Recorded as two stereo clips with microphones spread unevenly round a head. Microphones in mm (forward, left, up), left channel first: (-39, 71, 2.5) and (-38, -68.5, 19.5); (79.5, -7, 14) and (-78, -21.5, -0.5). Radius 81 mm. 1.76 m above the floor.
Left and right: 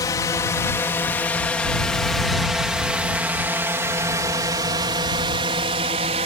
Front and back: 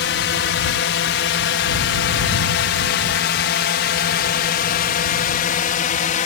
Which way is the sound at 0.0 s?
20° left.